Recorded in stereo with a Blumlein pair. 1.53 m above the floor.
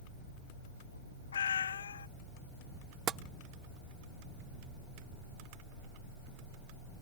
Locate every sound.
1.3 s a cat meowing: 70° left
3.1 s tapping: 25° right